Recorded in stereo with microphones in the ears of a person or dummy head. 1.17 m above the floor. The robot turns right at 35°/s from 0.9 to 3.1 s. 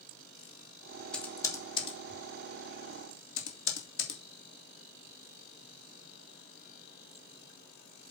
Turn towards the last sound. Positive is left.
turn(degrees=70)  # may be behind; listen again after turning